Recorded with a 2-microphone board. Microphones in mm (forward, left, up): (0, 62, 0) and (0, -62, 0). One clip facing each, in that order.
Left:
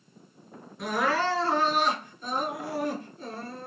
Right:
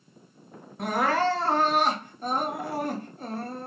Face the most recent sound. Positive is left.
turn(degrees=-55)  # may be behind; listen again after turning